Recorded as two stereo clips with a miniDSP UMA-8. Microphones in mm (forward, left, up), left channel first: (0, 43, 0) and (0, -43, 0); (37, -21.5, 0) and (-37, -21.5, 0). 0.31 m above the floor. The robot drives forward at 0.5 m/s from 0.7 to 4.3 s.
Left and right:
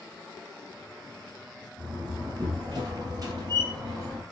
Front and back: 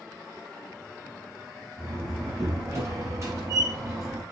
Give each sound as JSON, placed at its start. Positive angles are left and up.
{"t": 1.8, "sound": "a door slam", "azimuth_deg": -125, "distance_m": 4.0}